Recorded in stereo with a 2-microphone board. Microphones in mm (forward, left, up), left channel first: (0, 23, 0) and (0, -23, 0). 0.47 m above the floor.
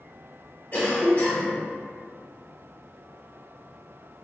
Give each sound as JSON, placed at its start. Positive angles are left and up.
{"t": 0.7, "sound": "a cough", "side_deg": 35, "distance_m": 1.7}